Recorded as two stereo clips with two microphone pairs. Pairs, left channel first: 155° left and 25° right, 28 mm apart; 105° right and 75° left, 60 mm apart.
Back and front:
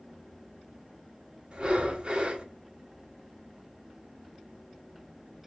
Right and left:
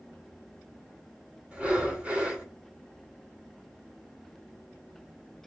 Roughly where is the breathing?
Ahead.